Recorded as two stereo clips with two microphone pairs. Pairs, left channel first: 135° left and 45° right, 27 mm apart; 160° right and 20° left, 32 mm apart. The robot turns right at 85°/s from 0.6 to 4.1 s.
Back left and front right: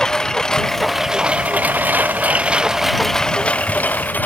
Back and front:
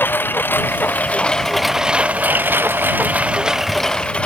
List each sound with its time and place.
0.0 s a lawn mower: 155° right; by 4.3 s 140° left